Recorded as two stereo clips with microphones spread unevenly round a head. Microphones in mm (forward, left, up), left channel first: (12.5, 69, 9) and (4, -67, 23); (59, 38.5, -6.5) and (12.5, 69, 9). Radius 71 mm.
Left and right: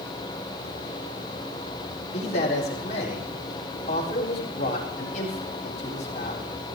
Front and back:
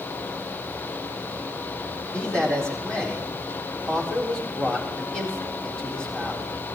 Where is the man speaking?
45° left, 4 m.